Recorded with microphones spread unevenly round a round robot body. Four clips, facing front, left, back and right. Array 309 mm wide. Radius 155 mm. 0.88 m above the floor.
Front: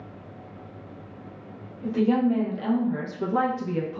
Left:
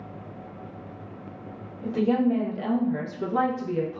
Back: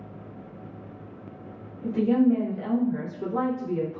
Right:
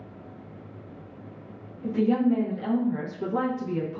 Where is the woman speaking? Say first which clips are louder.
Even, back 1 dB; 55° left, 1.3 m; by 4.0 s 30° right, 0.7 m.